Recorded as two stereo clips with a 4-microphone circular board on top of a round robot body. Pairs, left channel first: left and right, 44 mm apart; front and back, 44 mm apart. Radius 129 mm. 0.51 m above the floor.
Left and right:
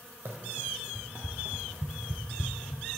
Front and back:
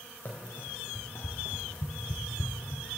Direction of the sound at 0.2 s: 50° right.